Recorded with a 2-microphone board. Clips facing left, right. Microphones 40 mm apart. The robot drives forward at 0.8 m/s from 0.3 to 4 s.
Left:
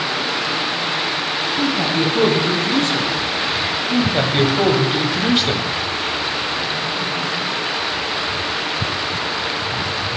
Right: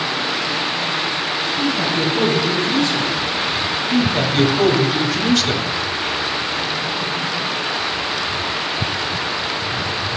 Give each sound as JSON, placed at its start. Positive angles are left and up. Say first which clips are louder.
{"t": 1.6, "sound": "a man speaking", "louder": "left 1 dB", "side_deg": 65, "distance_m": 2.5}
{"t": 3.9, "sound": "a man speaking", "louder": "even", "side_deg": 25, "distance_m": 1.2}